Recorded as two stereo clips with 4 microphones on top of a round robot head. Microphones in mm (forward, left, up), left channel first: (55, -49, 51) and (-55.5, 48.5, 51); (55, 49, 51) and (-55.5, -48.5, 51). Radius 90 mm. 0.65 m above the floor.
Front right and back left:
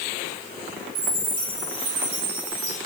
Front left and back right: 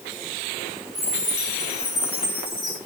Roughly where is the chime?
Behind left.